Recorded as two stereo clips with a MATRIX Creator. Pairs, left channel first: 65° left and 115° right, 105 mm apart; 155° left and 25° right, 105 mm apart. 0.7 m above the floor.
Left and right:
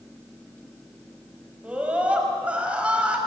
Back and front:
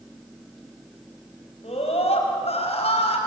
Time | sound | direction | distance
1.6 | a scream | 170° left | 5 m